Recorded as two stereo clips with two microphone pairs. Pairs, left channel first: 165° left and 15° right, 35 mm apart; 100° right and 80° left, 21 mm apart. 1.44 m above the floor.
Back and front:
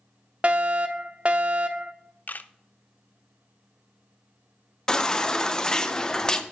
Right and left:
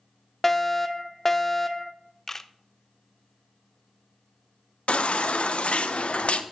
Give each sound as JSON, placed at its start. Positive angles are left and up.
{"t": 0.4, "sound": "a fire alarm", "azimuth_deg": -35, "distance_m": 0.7}
{"t": 2.3, "sound": "a camera shutter", "azimuth_deg": -175, "distance_m": 0.5}
{"t": 4.9, "sound": "a baby crying", "azimuth_deg": -125, "distance_m": 0.8}